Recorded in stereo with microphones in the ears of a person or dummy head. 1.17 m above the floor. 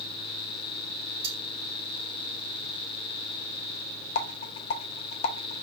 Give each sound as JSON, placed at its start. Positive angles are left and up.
{"t": 1.2, "sound": "cutlery clinking", "side_deg": -80, "distance_m": 3.5}
{"t": 4.2, "sound": "a rattle", "side_deg": 35, "distance_m": 0.8}